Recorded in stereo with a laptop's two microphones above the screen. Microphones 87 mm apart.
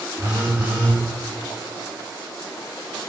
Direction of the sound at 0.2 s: 20° right (ahead or behind).